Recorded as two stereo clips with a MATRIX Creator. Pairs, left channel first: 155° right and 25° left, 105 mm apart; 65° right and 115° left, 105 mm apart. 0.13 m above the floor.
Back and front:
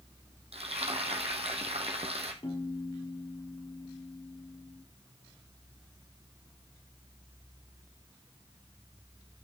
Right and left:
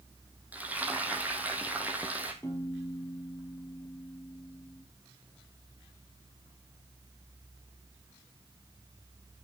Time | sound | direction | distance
0.5 | frying | 35° left | 2 m
2.4 | a piano | 130° right | 3 m